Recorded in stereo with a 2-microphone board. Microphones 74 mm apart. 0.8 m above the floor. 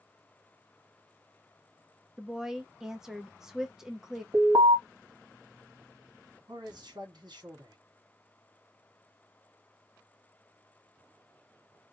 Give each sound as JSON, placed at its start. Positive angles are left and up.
{"t": 2.2, "sound": "a woman speaking", "side_deg": -5, "distance_m": 0.6}
{"t": 4.3, "sound": "an alarm", "side_deg": -60, "distance_m": 1.4}
{"t": 6.5, "sound": "a man speaking", "side_deg": -70, "distance_m": 1.4}